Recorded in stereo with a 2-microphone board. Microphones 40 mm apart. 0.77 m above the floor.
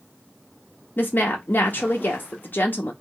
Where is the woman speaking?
50° left (ahead or behind), 0.7 m.